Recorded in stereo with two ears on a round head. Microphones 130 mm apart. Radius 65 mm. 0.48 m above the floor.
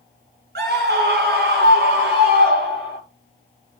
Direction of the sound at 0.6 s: 75° right (ahead or behind).